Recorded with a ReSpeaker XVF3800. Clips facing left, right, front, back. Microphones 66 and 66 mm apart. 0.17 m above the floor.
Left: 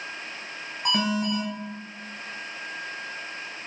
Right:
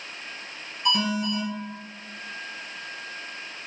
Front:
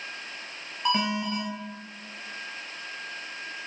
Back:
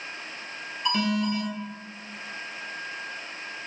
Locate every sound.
0.8 s an alarm: 65° left, 1.8 m